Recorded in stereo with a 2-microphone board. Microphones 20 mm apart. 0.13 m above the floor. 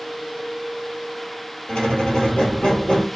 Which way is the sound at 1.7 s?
70° left (ahead or behind).